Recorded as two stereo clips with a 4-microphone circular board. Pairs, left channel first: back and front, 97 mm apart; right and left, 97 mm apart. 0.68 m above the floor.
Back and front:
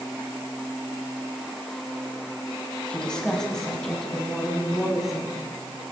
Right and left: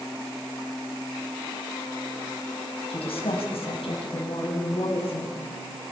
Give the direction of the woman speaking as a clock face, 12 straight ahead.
3 o'clock.